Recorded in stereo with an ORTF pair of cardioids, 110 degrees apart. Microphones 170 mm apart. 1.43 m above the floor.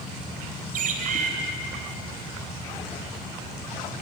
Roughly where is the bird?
Ahead right.